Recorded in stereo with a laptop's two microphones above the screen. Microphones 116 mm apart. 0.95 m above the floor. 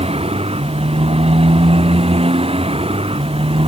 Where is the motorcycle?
65° right (ahead or behind); by 3.7 s 60° right (ahead or behind).